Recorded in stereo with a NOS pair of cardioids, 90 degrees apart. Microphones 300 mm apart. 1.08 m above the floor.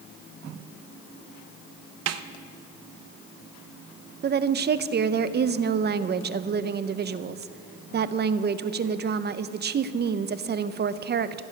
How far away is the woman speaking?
About 0.6 m.